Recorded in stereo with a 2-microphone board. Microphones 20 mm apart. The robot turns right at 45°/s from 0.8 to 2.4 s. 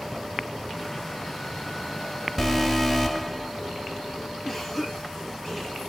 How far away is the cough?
About 4.5 m.